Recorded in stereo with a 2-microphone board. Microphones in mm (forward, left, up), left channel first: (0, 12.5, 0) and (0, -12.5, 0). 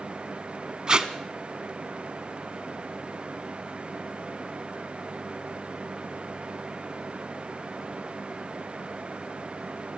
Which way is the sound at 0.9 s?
35° right (ahead or behind).